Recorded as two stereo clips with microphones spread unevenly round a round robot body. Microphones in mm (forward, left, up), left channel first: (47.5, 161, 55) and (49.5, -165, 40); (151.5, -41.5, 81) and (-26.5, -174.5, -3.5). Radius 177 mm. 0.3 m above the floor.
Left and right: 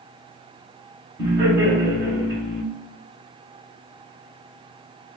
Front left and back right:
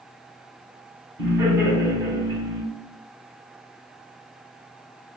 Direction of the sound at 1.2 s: 160° right.